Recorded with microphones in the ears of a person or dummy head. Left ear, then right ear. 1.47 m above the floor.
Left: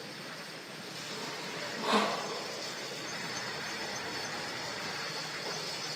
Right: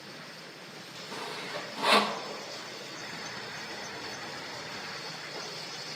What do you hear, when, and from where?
1.1 s sawing: 30° right (ahead or behind), 0.8 m